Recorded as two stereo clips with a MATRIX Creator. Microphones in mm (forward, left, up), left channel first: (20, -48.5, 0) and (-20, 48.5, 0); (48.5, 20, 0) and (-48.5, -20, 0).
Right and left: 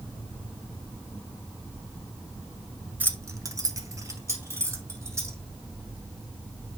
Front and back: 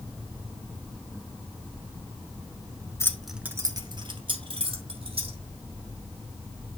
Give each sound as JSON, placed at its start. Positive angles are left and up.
{"t": 3.0, "sound": "keys jangling", "azimuth_deg": 55, "distance_m": 0.8}